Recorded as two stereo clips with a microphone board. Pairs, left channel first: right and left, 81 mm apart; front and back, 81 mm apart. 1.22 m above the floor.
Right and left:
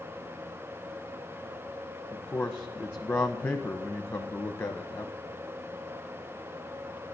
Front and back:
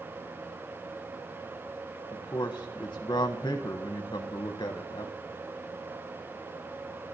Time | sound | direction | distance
2.1 | a man speaking | 30° right | 0.9 m